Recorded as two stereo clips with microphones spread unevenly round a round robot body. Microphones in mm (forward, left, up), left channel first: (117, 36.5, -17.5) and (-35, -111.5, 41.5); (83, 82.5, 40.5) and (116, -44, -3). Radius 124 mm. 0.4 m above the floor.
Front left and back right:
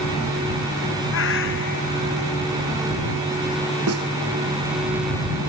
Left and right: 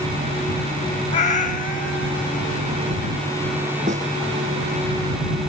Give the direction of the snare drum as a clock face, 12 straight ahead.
4 o'clock.